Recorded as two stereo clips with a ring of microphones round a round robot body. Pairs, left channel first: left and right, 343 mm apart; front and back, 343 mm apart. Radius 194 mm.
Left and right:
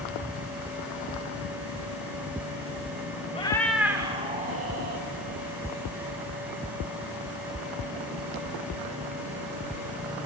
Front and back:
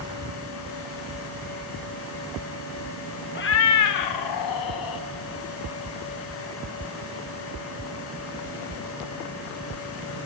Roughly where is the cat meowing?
Ahead left.